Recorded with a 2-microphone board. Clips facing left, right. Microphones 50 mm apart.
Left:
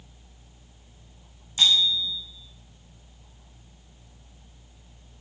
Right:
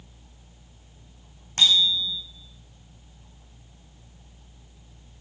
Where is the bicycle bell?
55° right (ahead or behind), 6.5 m.